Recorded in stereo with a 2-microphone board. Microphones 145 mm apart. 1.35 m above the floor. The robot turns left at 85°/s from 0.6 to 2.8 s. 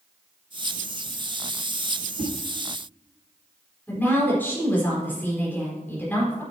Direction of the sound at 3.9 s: 15° left (ahead or behind).